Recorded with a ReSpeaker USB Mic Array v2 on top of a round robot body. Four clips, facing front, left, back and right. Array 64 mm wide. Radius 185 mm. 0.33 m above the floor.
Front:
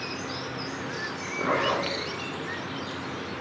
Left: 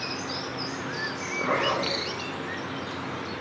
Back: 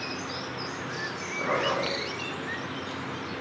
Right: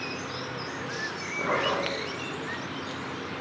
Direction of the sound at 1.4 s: 5° right.